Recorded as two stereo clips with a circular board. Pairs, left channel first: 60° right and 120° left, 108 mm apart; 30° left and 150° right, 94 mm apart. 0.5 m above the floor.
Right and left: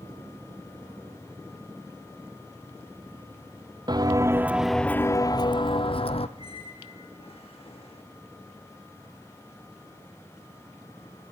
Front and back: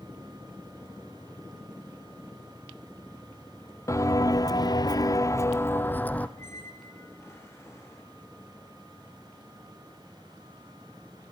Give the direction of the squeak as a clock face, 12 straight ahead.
1 o'clock.